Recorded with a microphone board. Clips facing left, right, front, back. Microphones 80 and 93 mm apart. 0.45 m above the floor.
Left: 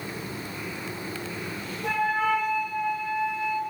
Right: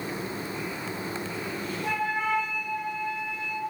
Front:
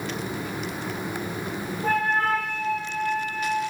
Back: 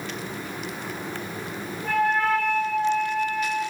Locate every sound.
1.8 s a flute: 45° left, 4.5 m